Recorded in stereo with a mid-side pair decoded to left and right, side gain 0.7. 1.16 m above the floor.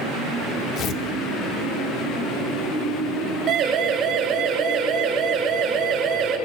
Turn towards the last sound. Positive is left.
turn(degrees=-45)